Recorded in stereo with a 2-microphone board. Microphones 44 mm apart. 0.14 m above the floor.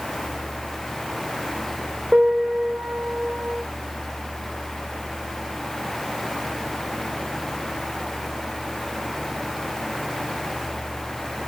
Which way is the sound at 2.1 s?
40° right (ahead or behind).